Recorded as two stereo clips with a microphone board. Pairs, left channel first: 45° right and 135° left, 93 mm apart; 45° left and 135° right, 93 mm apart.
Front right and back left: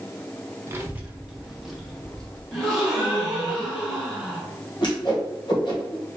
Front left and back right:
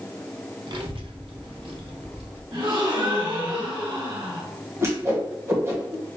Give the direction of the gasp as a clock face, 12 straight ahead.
4 o'clock.